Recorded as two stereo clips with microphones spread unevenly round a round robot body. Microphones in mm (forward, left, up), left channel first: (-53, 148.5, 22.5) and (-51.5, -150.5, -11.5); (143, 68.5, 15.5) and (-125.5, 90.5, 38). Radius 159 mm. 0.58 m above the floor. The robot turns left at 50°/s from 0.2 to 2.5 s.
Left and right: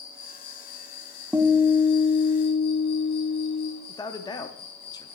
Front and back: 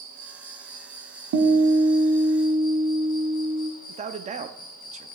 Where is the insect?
150° left, 3 m; by 5.2 s 35° left, 3 m.